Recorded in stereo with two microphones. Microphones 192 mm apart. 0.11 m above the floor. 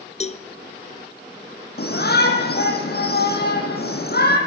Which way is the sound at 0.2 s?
35° left (ahead or behind).